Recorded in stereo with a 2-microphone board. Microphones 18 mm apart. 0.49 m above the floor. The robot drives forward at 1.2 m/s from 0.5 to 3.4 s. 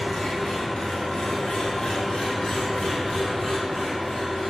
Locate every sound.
0.0 s an engine running: 50° left (ahead or behind), 2 m; by 4.5 s 35° left (ahead or behind), 2.5 m